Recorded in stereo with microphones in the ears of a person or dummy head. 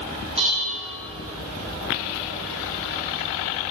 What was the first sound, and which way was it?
Dishes clattering, 40° right (ahead or behind).